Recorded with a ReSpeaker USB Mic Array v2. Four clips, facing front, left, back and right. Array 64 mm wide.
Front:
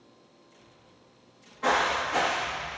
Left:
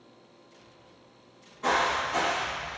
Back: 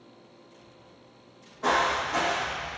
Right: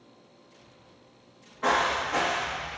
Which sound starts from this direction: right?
Footsteps, at 1.6 s.